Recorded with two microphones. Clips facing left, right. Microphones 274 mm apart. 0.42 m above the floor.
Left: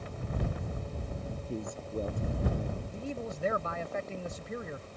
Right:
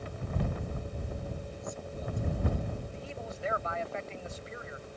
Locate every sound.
1.5 s a man speaking: 70° left (ahead or behind)
2.9 s a man speaking: 55° left (ahead or behind)